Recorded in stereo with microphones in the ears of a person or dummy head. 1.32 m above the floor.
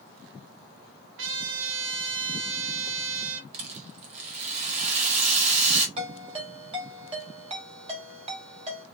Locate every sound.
1.2 s a trumpet: 70° right (ahead or behind), 1.0 m
3.5 s a rattle: 45° right (ahead or behind), 1.1 m
6.0 s a ringtone: 35° right (ahead or behind), 1.9 m